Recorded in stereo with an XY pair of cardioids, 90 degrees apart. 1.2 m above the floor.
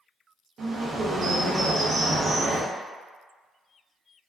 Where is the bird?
55° right, 0.8 m.